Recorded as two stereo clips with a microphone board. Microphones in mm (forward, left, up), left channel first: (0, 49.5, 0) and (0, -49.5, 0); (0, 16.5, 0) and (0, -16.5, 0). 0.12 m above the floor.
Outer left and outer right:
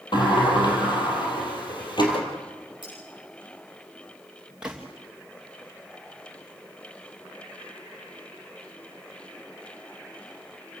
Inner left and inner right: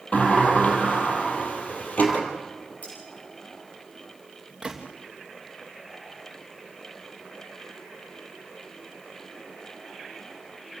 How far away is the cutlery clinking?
About 7 m.